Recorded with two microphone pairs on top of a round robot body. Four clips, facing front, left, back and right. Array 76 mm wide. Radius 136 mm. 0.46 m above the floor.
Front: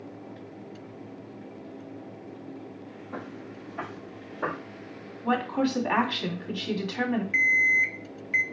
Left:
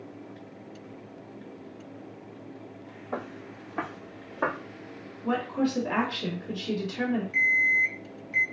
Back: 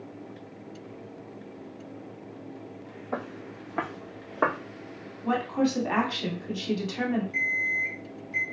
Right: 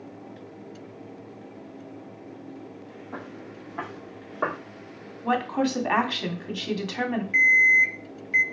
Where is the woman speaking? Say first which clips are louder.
Right 3 dB, even; 75° right, 1.9 m.